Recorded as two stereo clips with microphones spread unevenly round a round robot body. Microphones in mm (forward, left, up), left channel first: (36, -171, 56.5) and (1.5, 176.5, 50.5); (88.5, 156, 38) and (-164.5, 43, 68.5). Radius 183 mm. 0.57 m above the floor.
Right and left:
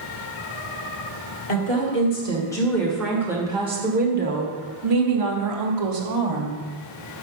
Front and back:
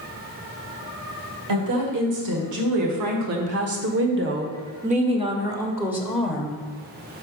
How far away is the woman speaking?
About 2 m.